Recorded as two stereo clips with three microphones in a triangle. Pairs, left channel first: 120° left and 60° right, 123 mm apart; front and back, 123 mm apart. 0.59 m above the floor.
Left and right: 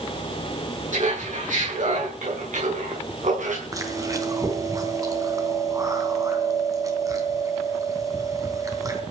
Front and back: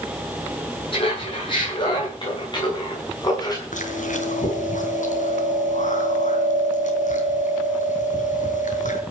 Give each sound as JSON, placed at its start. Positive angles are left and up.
{"t": 0.9, "sound": "laughter", "azimuth_deg": -45, "distance_m": 8.5}
{"t": 3.7, "sound": "chewing", "azimuth_deg": 5, "distance_m": 3.0}